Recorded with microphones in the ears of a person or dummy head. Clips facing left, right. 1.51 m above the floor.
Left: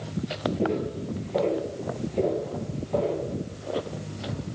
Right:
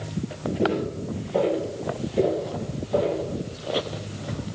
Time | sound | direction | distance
0.6 | footsteps | 10° right (ahead or behind) | 2 m